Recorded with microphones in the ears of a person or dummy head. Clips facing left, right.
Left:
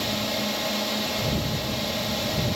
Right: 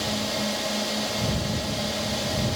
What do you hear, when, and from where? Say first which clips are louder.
0.0 s a drone: even; 5° right (ahead or behind)